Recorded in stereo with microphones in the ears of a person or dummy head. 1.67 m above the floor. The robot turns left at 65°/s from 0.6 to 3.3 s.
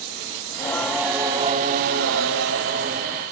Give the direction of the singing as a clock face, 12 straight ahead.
11 o'clock.